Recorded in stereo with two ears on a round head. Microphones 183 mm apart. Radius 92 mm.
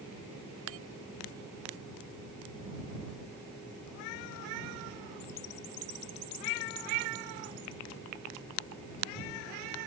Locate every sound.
0.7 s a bell: 75° right (ahead or behind)